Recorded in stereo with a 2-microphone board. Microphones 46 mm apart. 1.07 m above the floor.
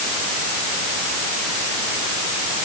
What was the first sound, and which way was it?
Only background noise.